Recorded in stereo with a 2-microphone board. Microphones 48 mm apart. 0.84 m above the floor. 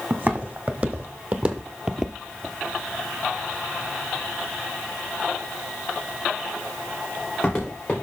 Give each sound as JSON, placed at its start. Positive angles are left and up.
{"t": 0.1, "sound": "footsteps", "side_deg": -35, "distance_m": 2.0}